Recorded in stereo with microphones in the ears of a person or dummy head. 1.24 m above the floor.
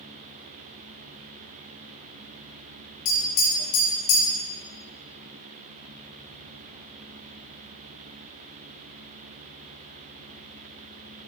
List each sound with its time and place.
3.0 s tapping: 45° left (ahead or behind), 1.0 m